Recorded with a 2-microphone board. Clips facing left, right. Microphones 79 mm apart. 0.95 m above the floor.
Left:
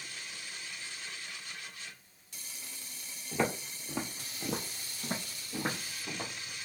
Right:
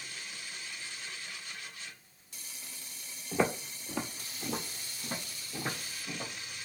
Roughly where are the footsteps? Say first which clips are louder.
Right 2 dB; centre.